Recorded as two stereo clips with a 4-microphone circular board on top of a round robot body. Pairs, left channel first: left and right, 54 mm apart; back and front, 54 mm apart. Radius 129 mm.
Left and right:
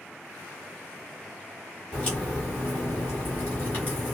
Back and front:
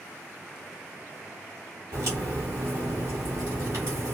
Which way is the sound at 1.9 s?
35° left.